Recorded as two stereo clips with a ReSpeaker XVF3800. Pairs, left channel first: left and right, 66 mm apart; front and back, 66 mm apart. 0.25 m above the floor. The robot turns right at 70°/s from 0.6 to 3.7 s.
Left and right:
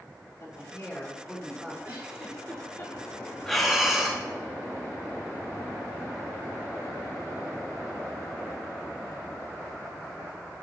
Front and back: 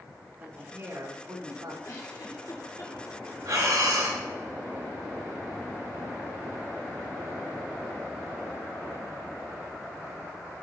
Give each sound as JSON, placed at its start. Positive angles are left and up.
{"t": 0.4, "sound": "a woman speaking", "azimuth_deg": 115, "distance_m": 3.0}
{"t": 1.8, "sound": "a giggle", "azimuth_deg": -30, "distance_m": 2.5}
{"t": 3.5, "sound": "breathing", "azimuth_deg": 170, "distance_m": 2.5}